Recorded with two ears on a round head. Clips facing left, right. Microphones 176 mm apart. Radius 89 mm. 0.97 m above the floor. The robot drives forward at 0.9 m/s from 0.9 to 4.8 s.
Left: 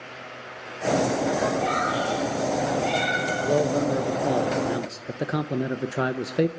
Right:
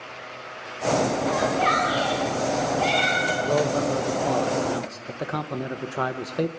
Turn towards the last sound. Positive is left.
turn(degrees=25)  # may be behind; listen again after turning